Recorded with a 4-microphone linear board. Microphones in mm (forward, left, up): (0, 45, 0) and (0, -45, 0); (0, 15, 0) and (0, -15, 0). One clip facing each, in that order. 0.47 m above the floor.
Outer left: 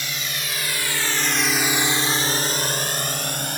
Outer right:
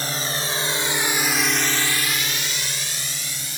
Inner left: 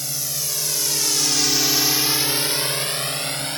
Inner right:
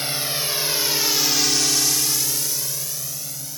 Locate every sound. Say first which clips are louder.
0.0 s a drone: outer right 4 dB, inner right 4 dB; 40° right (ahead or behind); by 3.6 s 55° left (ahead or behind)